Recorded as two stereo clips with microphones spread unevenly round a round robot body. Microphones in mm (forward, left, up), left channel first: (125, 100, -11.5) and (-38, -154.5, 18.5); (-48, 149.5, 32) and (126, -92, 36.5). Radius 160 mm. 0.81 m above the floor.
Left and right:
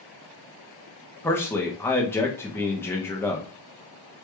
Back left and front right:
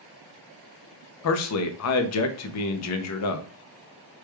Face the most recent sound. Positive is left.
turn(degrees=135)